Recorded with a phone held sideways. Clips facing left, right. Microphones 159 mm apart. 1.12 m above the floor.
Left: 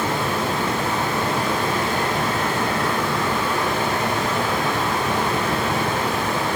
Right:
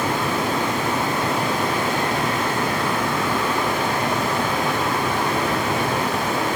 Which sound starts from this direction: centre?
Running water, at 0.0 s.